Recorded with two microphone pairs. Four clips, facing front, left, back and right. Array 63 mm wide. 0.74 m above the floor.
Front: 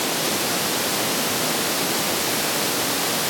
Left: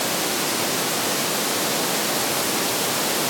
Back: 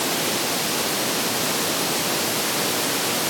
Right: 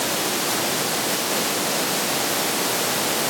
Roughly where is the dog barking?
No dog barking in this recording.